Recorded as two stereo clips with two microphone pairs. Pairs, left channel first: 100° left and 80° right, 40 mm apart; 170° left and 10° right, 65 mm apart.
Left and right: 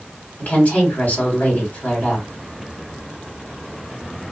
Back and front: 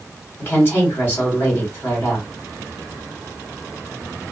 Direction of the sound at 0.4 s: 135° left.